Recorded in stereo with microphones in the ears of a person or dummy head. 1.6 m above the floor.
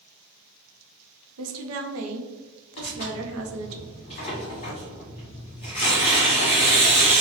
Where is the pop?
I don't hear a pop.